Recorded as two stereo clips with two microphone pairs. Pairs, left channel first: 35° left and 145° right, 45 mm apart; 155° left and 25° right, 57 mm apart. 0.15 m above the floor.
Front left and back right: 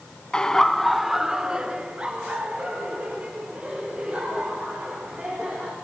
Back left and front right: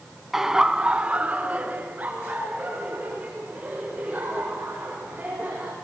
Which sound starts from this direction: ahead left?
Laughter, at 0.3 s.